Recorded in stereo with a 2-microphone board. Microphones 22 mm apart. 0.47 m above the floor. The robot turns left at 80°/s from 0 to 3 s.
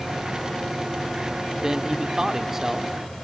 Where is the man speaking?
25° right (ahead or behind), 1.2 m; by 3.1 s 5° right (ahead or behind), 1.2 m.